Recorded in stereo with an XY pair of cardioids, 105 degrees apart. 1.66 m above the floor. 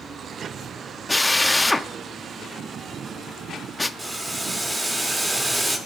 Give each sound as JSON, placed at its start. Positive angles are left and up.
{"t": 1.1, "sound": "a drill", "azimuth_deg": 10, "distance_m": 0.9}
{"t": 4.0, "sound": "boiling", "azimuth_deg": -20, "distance_m": 3.0}